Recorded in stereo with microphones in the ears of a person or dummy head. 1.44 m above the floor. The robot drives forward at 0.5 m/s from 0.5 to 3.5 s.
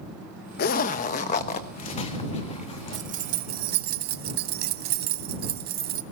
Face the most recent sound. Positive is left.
turn(degrees=-50)  # may be behind; listen again after turning